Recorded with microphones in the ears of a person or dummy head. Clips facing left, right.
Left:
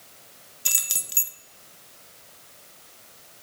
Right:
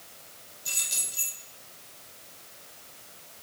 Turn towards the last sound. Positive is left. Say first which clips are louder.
# left 3 dB
turn(degrees=65)  # may be behind; listen again after turning